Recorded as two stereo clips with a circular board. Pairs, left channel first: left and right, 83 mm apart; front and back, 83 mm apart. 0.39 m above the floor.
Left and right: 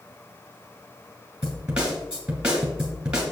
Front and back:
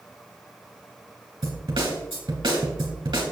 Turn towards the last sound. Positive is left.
turn(degrees=-170)